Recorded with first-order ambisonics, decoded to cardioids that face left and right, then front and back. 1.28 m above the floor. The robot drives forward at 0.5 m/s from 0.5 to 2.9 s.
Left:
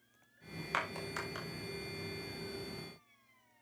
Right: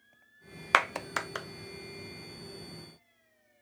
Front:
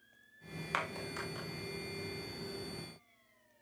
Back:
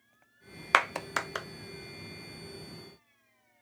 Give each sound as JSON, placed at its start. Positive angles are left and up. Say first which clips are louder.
{"t": 0.7, "sound": "a clap", "louder": "right 11 dB, back 12 dB", "azimuth_deg": -135, "distance_m": 0.7}